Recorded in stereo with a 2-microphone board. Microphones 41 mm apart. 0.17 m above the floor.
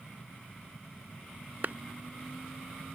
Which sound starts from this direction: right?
A clap, at 1.6 s.